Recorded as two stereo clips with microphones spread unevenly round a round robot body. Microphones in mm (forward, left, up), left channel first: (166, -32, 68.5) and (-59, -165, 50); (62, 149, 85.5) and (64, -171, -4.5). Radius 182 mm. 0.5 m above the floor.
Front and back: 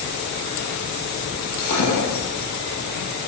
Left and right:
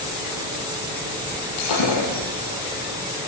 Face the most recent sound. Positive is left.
turn(degrees=75)